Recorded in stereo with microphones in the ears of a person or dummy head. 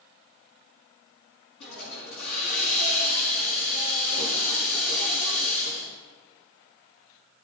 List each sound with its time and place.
1.6 s a hiss: 70° left (ahead or behind), 4.5 m